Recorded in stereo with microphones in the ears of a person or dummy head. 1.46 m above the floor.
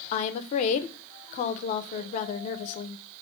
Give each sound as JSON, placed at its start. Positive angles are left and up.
{"t": 0.1, "sound": "a woman speaking", "side_deg": 40, "distance_m": 0.6}